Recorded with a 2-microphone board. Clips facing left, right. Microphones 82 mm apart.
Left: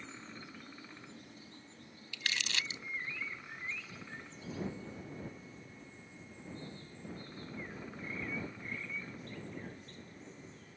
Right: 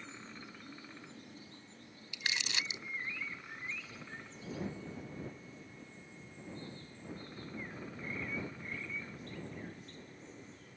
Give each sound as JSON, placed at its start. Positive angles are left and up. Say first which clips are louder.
{"t": 2.1, "sound": "crumpling", "louder": "even", "side_deg": -20}